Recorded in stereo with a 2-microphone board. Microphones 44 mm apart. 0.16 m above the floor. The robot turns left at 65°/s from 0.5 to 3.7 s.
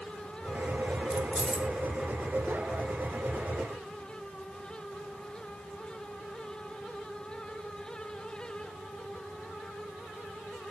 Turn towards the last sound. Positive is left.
turn(degrees=155)